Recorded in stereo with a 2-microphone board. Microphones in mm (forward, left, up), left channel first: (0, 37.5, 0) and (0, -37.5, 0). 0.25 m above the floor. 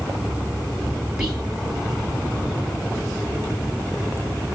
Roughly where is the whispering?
Centre.